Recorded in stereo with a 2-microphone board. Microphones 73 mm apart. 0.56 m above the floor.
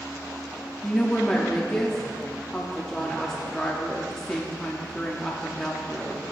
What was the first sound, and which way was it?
A woman speaking, 10° left (ahead or behind).